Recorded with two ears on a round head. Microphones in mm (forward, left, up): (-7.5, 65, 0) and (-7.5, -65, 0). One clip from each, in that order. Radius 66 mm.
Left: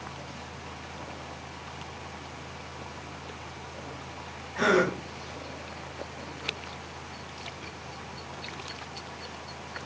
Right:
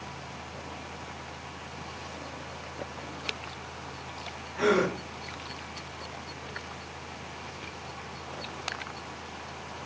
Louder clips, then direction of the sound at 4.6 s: Left 2 dB; 75° left (ahead or behind).